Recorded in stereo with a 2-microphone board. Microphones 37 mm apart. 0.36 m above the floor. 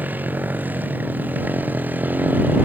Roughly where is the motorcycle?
Right.